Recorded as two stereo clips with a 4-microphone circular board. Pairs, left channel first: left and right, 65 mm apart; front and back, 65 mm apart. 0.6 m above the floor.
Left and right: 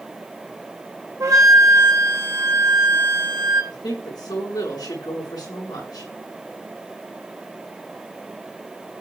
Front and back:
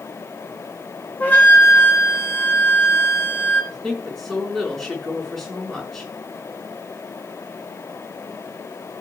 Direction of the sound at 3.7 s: 90° left.